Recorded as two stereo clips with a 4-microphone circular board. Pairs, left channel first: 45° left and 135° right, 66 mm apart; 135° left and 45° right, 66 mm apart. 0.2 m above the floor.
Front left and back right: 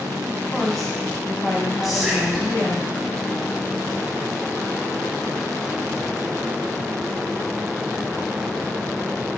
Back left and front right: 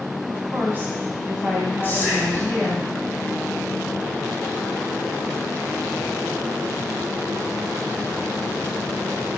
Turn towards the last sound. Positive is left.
turn(degrees=140)